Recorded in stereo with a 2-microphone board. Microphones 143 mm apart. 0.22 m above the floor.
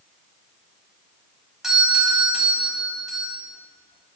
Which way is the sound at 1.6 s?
5° right (ahead or behind).